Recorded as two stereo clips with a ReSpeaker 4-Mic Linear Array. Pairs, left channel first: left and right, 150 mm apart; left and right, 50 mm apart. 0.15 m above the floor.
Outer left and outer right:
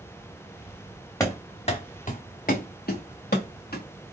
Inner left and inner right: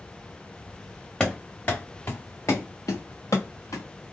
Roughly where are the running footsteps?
Centre.